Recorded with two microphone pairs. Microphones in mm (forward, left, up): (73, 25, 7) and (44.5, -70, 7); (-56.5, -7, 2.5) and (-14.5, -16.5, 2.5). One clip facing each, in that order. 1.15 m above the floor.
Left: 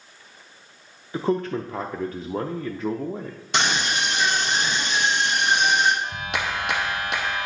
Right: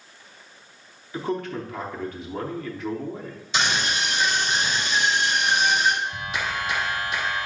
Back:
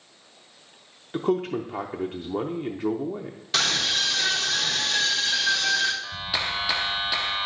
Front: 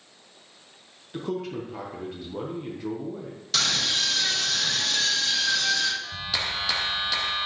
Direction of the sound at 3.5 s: 100° left.